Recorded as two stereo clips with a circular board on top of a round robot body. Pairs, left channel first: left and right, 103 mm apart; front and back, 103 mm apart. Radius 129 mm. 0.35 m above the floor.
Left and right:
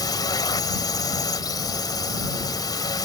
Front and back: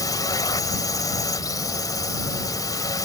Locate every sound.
0.0 s a drone: 45° left